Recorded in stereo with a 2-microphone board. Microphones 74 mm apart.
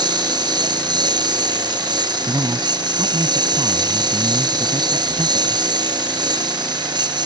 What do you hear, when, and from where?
0.0 s a lawn mower: 70° right (ahead or behind)
2.3 s a man speaking: 70° right (ahead or behind)